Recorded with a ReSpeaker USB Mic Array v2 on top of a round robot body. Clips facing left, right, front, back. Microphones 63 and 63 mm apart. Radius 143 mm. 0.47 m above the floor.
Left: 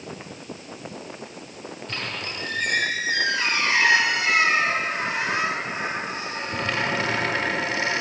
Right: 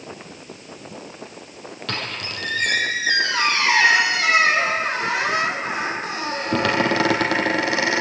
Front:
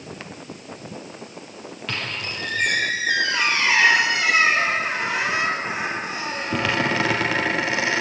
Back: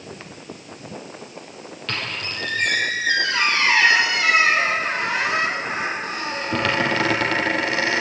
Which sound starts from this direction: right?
A squeak, at 1.9 s.